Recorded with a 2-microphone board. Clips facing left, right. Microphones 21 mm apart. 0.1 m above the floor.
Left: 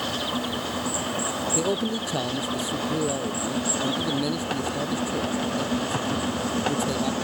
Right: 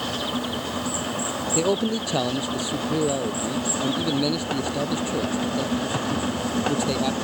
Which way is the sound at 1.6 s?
20° right (ahead or behind).